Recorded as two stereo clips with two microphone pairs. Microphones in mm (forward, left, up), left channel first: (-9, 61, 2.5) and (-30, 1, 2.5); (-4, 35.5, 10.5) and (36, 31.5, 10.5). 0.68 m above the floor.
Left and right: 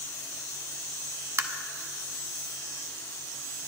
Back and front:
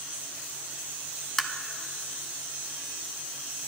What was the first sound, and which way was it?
Tapping, 100° right.